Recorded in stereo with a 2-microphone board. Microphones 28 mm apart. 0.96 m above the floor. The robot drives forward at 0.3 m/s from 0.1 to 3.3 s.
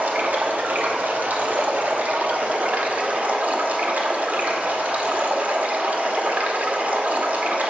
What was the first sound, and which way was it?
Running water, 75° right (ahead or behind).